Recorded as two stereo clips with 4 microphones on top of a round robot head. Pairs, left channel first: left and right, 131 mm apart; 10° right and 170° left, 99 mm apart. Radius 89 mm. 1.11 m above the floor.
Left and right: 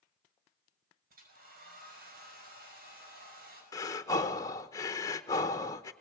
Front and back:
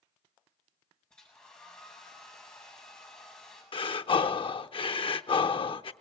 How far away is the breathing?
About 0.7 m.